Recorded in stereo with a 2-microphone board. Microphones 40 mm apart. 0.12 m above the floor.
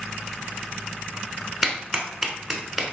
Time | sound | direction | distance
1.6 | a clap | centre (ahead or behind) | 0.8 m